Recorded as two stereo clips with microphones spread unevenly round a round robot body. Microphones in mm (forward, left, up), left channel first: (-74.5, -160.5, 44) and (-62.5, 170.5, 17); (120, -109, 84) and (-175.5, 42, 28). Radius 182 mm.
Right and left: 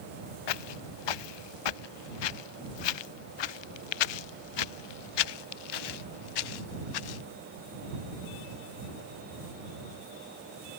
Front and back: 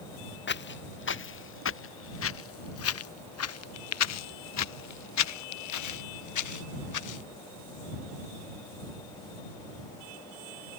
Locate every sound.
0.5 s footsteps: 85° right; by 7.2 s 60° right